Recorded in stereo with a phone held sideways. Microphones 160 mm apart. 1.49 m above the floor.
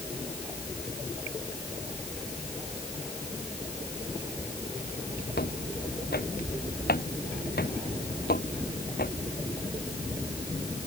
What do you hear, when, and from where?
5.3 s footsteps: 80° left; by 9.1 s 65° left (ahead or behind)